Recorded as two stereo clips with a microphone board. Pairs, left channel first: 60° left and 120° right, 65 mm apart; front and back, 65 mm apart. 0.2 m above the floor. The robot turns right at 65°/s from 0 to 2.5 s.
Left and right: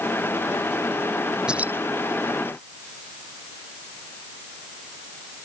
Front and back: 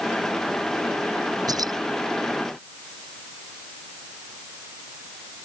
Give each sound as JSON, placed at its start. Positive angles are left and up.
{"t": 1.5, "sound": "keys jangling", "azimuth_deg": 165}